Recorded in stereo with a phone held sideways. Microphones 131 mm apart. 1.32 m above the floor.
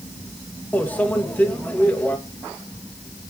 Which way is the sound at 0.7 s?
10° left (ahead or behind).